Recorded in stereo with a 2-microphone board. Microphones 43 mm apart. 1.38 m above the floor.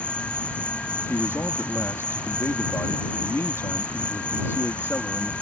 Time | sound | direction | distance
0.0 | an insect | 30° left (ahead or behind) | ?
1.1 | a man speaking | 80° left | ?